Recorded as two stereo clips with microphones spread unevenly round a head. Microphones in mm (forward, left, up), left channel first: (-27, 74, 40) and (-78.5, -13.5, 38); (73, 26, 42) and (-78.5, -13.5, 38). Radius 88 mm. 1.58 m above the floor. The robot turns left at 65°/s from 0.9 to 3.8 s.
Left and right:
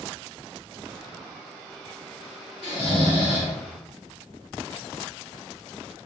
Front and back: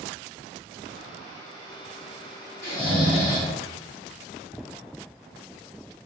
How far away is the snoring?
About 1.3 m.